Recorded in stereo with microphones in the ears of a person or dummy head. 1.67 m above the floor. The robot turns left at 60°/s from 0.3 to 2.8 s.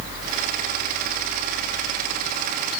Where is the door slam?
No door slam in this recording.